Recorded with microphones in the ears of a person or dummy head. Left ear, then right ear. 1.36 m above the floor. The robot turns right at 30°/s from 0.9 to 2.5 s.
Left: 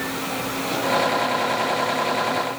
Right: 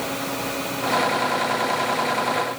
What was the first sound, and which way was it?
Only background noise.